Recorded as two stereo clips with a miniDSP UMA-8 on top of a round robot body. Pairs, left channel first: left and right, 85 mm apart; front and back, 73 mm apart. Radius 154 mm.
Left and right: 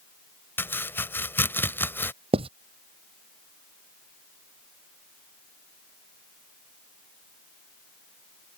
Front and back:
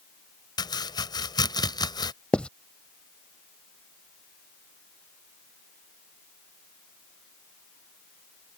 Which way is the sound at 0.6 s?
25° left.